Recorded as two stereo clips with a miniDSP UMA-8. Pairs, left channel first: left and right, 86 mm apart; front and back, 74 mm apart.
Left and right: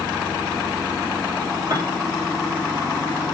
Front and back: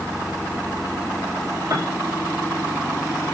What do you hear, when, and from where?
1.7 s a piano: 140° right, 5.5 m